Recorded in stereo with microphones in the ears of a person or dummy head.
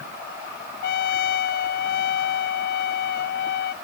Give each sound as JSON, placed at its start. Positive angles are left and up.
{"t": 0.8, "sound": "a trumpet", "side_deg": 60}